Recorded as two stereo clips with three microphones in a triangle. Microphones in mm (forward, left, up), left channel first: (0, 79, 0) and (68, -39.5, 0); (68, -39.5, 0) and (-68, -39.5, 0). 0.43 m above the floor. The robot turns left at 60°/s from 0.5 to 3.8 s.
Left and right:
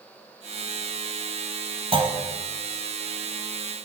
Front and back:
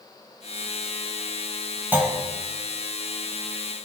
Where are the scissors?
No scissors in this recording.